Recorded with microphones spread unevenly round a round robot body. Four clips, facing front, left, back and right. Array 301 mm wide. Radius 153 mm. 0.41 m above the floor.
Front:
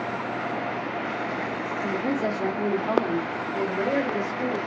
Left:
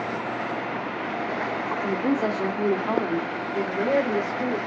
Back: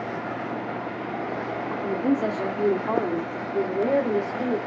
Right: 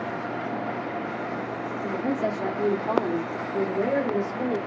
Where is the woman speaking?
125° left, 1.4 m; by 4.6 s 140° right, 2.0 m.